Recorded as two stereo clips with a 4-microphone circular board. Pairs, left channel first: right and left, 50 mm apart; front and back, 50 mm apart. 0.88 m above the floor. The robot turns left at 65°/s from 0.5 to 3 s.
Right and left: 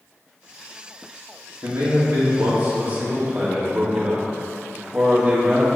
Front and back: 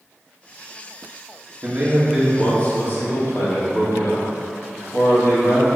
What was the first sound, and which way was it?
A man speaking, 125° left.